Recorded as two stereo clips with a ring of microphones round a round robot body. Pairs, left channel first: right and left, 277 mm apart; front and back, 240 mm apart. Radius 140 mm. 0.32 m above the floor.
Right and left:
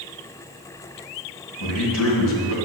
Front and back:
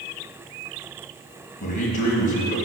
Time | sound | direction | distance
1.6 | a man speaking | 60° right | 2 m